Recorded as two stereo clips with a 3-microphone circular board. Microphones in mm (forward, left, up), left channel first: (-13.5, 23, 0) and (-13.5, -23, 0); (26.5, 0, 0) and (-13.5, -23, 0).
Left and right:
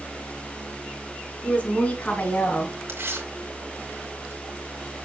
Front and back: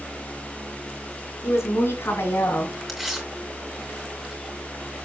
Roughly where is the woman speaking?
Ahead left.